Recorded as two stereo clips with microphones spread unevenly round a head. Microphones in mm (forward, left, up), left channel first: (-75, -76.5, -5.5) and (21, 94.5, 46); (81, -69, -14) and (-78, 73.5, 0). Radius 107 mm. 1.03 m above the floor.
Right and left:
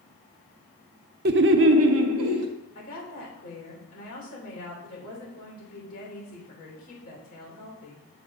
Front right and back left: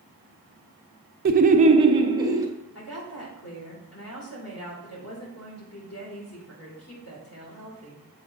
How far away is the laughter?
About 0.5 m.